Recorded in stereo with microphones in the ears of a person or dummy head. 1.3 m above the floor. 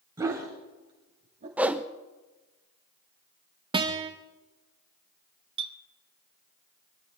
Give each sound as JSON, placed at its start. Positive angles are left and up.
{"t": 0.2, "sound": "a dog barking", "side_deg": -15, "distance_m": 3.0}
{"t": 1.6, "sound": "a whoosh", "side_deg": 0, "distance_m": 0.7}
{"t": 3.7, "sound": "a guitar", "side_deg": -20, "distance_m": 1.2}
{"t": 5.6, "sound": "a clink", "side_deg": -25, "distance_m": 1.0}